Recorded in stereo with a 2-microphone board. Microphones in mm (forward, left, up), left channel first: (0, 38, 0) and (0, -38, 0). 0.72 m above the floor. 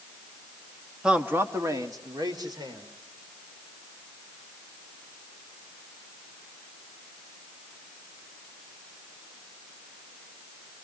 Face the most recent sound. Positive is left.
turn(degrees=-70)  # may be behind; listen again after turning